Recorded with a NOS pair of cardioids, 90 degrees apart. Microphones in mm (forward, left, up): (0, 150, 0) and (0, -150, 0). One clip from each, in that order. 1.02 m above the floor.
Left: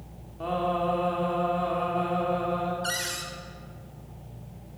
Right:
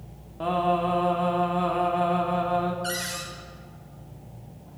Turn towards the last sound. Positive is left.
turn(degrees=10)